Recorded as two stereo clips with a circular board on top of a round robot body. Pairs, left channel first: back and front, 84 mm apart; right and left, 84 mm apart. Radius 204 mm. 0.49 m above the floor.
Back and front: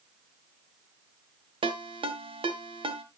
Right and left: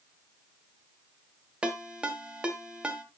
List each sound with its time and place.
1.6 s a ringtone: 10° left, 1.8 m